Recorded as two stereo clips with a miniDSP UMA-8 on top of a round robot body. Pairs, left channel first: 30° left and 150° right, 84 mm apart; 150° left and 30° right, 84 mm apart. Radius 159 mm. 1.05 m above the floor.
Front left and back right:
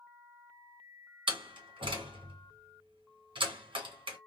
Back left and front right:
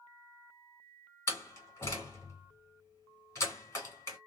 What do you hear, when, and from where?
1.3 s a door slam: 150° right, 1.7 m